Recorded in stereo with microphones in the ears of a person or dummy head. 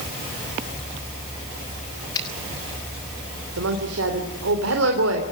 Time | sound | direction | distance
2.1 | a finger snap | 25° left (ahead or behind) | 6.5 m
3.6 | a woman speaking | 90° right | 3.5 m